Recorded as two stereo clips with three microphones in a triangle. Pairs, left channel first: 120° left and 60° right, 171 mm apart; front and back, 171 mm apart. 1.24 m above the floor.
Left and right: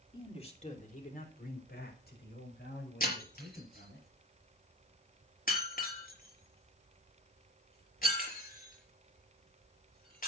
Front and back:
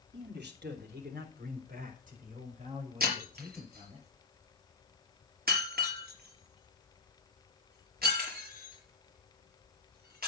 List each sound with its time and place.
0.1 s a man speaking: straight behind, 3.5 m; by 4.0 s 125° left, 7 m
3.0 s breaking glass: 155° left, 5 m